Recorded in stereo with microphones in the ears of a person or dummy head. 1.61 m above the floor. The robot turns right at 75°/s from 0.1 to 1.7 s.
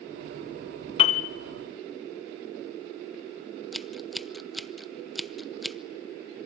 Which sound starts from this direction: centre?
Scissors, at 3.7 s.